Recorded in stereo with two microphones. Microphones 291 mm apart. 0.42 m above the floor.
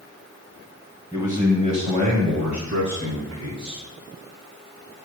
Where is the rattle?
No rattle in this recording.